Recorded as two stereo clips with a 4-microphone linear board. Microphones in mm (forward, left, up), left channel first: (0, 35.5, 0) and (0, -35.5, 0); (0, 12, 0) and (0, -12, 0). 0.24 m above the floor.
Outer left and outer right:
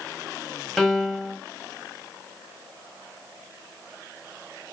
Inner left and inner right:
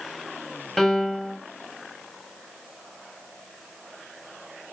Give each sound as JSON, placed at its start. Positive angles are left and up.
{"t": 0.8, "sound": "a piano", "side_deg": 5, "distance_m": 0.7}